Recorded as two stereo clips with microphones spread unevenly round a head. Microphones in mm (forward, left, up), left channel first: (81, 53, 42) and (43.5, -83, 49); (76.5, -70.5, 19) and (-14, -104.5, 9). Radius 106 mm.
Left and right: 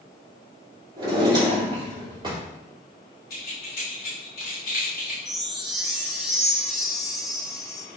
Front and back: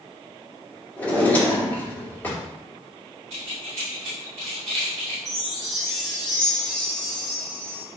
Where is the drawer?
50° right, 2 m.